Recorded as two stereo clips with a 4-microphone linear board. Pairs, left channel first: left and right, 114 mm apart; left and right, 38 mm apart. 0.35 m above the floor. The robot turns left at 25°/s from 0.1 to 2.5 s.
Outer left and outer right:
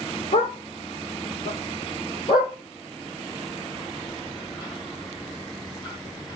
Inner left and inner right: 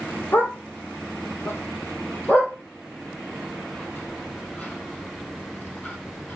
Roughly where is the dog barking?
Left.